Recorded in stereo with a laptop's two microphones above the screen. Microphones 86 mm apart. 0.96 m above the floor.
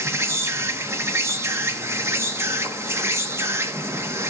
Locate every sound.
0.0 s an insect: 30° right (ahead or behind), 0.9 m